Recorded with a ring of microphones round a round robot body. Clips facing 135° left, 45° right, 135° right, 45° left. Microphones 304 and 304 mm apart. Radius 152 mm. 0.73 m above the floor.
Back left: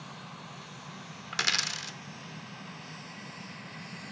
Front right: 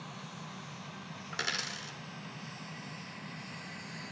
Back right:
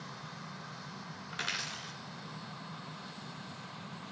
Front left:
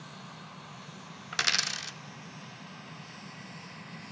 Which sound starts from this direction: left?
A dropped coin, at 1.3 s.